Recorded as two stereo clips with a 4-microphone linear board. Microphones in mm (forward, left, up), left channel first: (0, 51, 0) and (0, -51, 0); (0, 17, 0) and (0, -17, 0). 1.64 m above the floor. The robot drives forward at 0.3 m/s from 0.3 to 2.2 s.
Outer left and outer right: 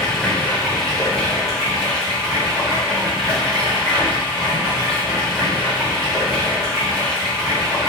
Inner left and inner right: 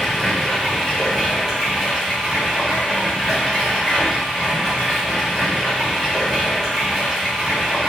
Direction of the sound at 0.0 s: 5° left (ahead or behind).